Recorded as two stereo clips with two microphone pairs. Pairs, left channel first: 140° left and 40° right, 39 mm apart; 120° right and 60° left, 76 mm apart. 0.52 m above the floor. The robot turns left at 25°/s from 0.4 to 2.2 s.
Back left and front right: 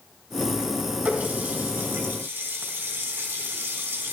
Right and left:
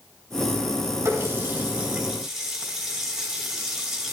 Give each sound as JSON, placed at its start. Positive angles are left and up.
{"t": 1.1, "sound": "a running tap", "azimuth_deg": 10, "distance_m": 2.5}